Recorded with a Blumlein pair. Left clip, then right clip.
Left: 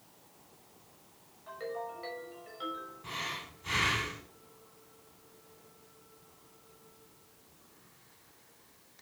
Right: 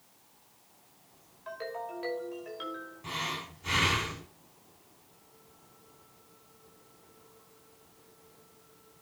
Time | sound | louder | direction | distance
1.5 | a ringtone | right 1 dB | 50° right | 5.5 m
3.0 | breathing | right 4 dB | 20° right | 3 m